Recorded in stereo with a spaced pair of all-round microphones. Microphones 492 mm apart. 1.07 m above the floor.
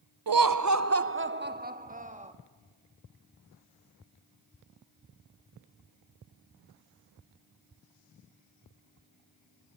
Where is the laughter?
45° right (ahead or behind), 0.6 m; by 2.3 s 15° right (ahead or behind), 2 m.